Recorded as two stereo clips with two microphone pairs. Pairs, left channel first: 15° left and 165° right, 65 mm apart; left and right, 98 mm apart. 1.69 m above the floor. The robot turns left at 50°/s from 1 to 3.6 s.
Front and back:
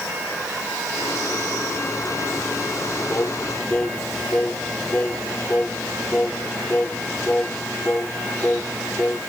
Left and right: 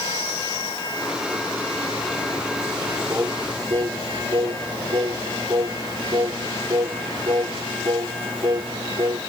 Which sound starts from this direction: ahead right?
Singing, at 3.1 s.